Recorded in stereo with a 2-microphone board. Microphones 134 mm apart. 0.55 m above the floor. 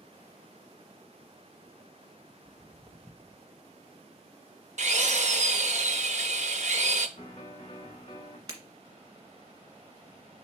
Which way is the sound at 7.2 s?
55° left (ahead or behind).